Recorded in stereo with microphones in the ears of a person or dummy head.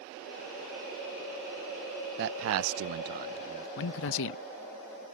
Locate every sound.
2.2 s a man speaking: 60° right (ahead or behind); by 3.7 s 25° right (ahead or behind)
3.8 s a man speaking: 65° left (ahead or behind)